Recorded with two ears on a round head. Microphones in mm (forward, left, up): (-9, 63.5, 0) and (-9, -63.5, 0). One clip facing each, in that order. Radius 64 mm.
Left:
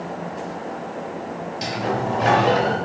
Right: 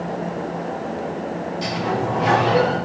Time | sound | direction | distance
1.6 | a sliding door | 60° left (ahead or behind) | 3 m